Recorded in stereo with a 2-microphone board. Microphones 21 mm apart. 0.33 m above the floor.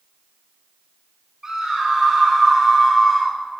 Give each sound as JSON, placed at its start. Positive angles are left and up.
{"t": 1.4, "sound": "a scream", "side_deg": -15, "distance_m": 2.0}